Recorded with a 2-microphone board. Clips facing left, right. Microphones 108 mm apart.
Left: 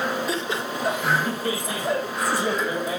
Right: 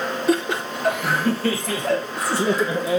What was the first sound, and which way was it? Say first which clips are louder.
Laughter: right 6 dB; 60° right (ahead or behind).